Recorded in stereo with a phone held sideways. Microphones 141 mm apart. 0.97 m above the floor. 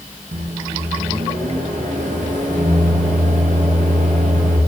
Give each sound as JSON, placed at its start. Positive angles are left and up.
{"t": 0.3, "sound": "a microwave", "side_deg": -70, "distance_m": 0.6}